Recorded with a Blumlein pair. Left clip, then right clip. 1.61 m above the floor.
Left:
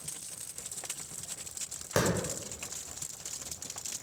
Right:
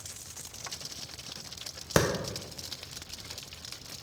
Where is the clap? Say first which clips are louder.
Right 3 dB; 70° right, 1.0 m.